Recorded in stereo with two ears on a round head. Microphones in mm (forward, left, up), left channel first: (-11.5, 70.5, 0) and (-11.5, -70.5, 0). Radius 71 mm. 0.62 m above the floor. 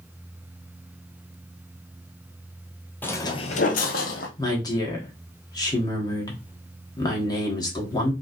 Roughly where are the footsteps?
Centre.